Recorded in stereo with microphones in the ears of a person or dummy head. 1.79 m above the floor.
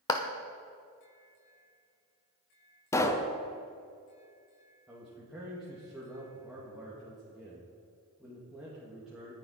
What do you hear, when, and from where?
0.1 s a clap: 20° left (ahead or behind), 0.8 m
2.9 s a pop: 15° left (ahead or behind), 0.8 m
4.9 s a man speaking: 5° right (ahead or behind), 2.0 m